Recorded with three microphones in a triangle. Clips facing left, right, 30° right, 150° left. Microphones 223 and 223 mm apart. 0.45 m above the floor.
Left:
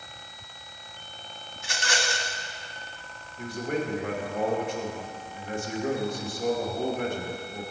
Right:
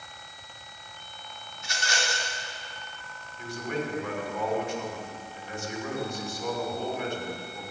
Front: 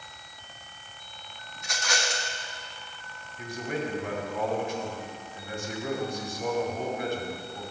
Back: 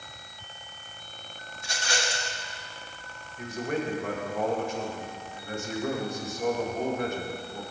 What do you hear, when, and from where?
1.6 s a rattle: 90° left, 1.3 m
3.4 s a man speaking: 115° left, 3 m